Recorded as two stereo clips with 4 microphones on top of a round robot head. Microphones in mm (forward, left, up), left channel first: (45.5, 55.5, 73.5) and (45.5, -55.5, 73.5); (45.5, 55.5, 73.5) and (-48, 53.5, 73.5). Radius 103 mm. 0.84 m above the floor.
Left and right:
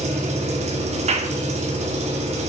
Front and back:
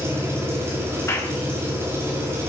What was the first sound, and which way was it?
An engine running, 110° right.